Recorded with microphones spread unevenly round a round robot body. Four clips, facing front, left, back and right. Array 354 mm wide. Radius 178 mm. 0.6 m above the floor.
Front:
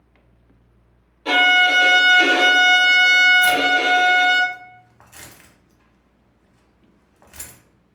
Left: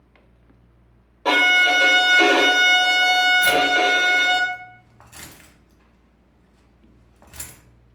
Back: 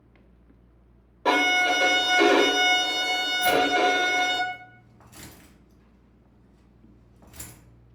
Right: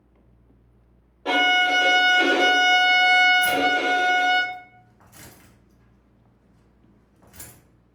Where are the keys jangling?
50° left, 0.9 m.